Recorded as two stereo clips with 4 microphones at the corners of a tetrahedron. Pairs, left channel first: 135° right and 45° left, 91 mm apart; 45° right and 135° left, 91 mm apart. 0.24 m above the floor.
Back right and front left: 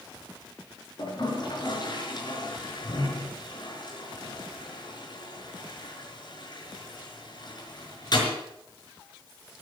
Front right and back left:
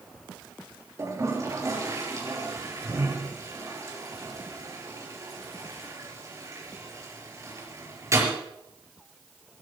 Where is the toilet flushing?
170° right, 5 m.